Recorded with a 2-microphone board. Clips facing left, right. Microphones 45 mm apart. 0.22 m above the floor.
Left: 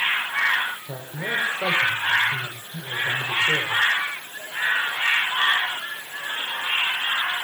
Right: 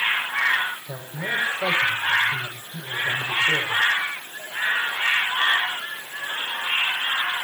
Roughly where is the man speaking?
Left.